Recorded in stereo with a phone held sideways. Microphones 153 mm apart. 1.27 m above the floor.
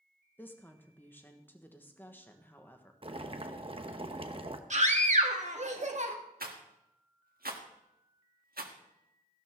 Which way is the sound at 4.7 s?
50° right (ahead or behind).